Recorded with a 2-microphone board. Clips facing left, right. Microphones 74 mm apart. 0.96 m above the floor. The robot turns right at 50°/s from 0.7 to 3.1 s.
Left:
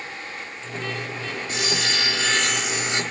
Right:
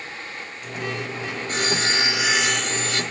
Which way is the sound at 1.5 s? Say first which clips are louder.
Right 3 dB; 50° right.